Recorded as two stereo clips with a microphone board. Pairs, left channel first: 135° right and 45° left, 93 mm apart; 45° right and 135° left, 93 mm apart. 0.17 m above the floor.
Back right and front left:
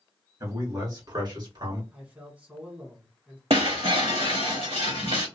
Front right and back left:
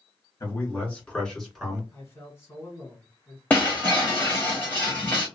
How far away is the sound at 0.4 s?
About 2.0 m.